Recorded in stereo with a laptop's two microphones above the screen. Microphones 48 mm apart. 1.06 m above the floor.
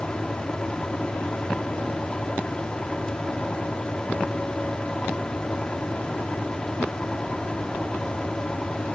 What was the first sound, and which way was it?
A fan, 20° left (ahead or behind).